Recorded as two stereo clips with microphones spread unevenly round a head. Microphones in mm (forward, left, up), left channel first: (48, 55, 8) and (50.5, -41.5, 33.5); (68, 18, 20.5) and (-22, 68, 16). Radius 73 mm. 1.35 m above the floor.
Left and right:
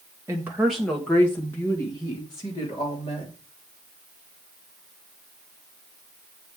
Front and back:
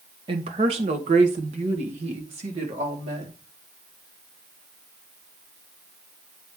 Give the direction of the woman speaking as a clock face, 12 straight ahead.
5 o'clock.